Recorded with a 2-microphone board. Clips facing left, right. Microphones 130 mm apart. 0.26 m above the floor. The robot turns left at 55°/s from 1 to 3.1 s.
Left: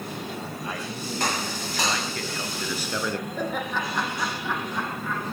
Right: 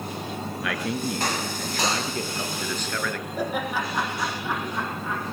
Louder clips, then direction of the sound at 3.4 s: Right 5 dB; 10° right (ahead or behind).